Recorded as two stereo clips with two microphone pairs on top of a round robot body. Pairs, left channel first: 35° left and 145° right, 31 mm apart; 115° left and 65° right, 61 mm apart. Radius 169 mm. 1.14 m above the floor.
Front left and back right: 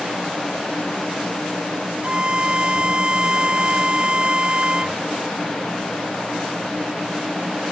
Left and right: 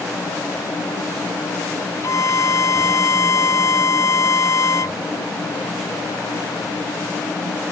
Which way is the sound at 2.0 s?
160° left.